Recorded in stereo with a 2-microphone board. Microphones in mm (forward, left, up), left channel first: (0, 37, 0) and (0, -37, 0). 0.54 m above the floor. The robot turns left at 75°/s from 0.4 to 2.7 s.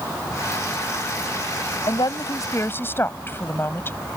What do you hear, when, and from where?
1.9 s a woman speaking: 95° left; by 4.0 s 30° left